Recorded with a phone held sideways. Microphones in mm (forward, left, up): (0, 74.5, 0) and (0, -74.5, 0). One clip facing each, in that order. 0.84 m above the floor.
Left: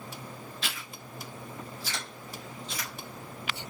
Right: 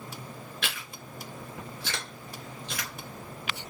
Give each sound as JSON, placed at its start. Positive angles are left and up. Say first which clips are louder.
{"t": 0.6, "sound": "chewing", "louder": "right 2 dB", "side_deg": -80, "distance_m": 3.5}